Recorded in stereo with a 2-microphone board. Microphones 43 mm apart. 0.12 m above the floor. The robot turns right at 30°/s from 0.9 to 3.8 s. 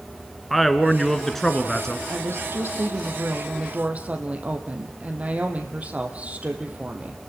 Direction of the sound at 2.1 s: 85° right.